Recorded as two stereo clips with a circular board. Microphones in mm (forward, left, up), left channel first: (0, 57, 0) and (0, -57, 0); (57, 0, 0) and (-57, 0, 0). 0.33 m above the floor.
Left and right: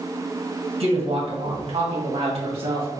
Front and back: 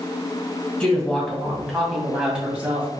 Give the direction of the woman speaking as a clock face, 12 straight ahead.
3 o'clock.